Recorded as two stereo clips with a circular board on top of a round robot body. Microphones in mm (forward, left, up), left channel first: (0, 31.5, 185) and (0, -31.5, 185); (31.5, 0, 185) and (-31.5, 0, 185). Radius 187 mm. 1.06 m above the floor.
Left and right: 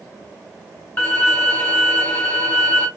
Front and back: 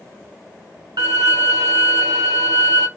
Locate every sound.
1.0 s a violin: 155° left, 1.7 m